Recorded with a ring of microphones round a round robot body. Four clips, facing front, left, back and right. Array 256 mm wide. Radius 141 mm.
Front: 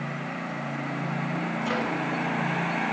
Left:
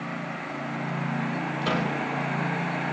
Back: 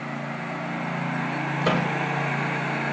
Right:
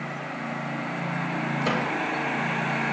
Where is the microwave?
170° right, 4.5 m.